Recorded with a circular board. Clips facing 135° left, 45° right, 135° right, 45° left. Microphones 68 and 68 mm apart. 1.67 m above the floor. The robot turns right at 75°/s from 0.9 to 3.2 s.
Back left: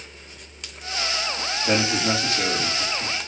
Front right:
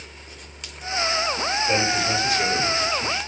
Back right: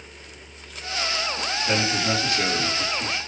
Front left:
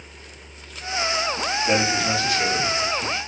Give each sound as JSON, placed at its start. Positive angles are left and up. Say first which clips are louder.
{"t": 1.6, "sound": "a man speaking", "louder": "back left 2 dB, front left 2 dB", "azimuth_deg": 115, "distance_m": 3.5}